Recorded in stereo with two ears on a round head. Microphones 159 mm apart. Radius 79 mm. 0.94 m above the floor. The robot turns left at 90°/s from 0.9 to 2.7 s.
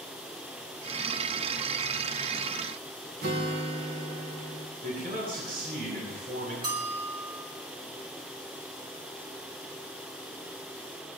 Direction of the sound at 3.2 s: 55° right (ahead or behind).